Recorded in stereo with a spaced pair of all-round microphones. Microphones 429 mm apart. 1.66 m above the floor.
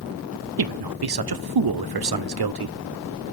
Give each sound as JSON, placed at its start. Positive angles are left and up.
{"t": 0.6, "sound": "a man speaking", "side_deg": -60, "distance_m": 0.5}